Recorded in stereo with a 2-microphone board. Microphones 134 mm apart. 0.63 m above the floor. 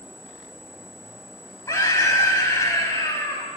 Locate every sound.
1.7 s a scream: 25° left (ahead or behind), 4 m